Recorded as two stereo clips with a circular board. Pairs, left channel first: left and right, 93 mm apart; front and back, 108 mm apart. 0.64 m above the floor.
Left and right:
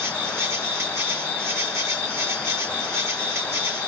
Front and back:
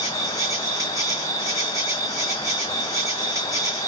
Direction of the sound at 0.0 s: 140° right.